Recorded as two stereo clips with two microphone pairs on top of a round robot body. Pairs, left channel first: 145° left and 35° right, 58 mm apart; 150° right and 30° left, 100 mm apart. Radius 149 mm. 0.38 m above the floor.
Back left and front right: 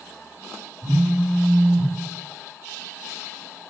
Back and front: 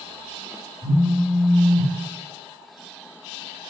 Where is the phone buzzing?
20° right, 1.0 m.